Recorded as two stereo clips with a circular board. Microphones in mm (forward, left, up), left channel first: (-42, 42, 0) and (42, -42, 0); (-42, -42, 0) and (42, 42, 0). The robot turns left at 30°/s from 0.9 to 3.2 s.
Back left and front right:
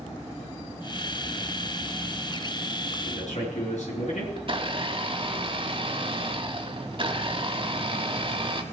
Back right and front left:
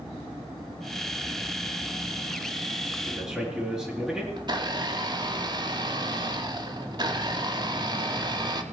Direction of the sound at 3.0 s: 130° left.